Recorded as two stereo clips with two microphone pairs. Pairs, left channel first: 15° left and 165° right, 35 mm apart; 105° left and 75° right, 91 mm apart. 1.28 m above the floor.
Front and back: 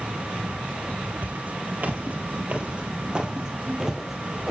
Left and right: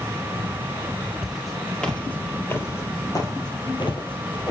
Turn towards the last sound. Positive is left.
turn(degrees=110)